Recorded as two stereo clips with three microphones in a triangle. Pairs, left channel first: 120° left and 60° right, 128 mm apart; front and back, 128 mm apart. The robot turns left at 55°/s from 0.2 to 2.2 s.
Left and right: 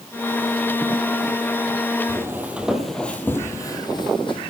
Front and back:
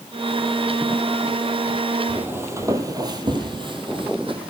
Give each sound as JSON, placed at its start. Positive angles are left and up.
{"t": 2.1, "sound": "footsteps", "azimuth_deg": -105, "distance_m": 1.8}